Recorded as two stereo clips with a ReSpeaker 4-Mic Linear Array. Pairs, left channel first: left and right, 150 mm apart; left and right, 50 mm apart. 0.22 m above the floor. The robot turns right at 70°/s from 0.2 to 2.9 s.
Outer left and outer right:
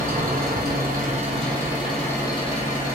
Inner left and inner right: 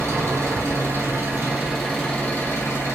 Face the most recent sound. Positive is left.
turn(degrees=70)